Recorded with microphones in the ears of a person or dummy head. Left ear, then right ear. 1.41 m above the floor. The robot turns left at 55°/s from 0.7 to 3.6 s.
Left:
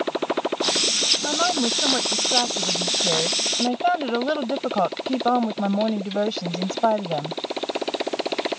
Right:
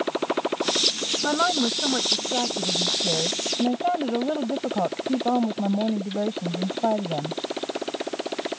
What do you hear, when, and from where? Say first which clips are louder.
0.0 s a motorcycle: left 1 dB; 5° left (ahead or behind); by 8.6 s 10° left (ahead or behind)
1.2 s a woman speaking: left 1 dB; 175° right; by 7.4 s 55° left